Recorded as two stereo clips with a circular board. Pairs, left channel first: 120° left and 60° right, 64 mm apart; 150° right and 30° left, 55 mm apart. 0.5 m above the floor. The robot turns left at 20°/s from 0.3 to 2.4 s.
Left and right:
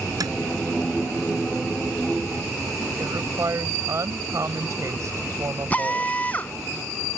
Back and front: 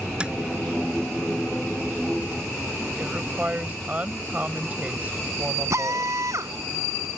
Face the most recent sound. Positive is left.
turn(degrees=55)